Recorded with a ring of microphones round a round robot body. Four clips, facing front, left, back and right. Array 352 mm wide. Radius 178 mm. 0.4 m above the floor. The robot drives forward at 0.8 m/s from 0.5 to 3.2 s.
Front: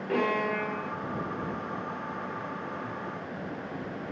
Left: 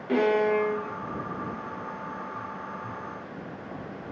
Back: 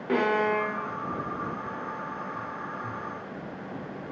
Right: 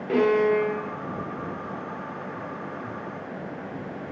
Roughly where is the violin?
Behind.